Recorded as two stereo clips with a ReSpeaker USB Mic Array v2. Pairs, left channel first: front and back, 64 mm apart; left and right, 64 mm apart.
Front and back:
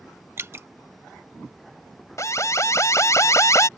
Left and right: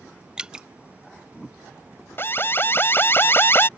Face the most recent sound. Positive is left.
turn(degrees=40)